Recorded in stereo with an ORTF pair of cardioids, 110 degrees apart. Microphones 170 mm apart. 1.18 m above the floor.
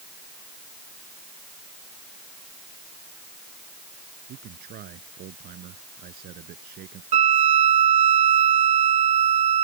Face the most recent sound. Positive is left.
turn(degrees=-50)